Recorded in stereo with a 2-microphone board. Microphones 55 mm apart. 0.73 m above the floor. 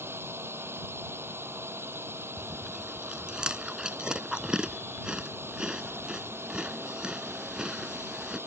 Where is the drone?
40° right (ahead or behind).